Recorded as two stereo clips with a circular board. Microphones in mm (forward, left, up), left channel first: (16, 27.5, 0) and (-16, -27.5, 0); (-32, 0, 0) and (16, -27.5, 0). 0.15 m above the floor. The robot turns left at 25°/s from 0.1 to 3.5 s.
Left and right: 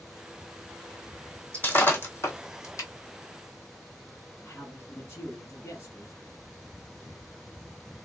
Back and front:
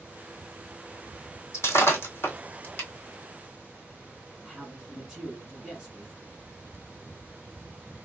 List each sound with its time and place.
1.5 s breaking glass: 120° left, 1.4 m; by 2.9 s 85° left, 1.4 m
4.4 s a man speaking: 45° left, 1.3 m